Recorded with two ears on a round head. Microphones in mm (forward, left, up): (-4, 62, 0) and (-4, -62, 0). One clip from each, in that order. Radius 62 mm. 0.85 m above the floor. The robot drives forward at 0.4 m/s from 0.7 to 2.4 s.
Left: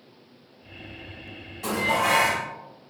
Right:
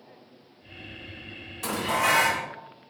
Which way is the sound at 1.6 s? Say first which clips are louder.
Left 2 dB; 55° right (ahead or behind).